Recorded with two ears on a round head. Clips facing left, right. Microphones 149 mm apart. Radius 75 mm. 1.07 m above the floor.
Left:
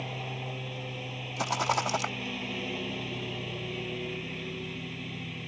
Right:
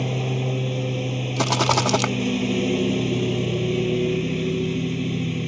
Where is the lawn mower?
55° right (ahead or behind).